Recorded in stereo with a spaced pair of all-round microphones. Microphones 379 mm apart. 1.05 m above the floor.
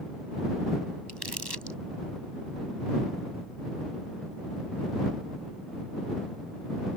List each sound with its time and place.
1.1 s crumpling: 80° right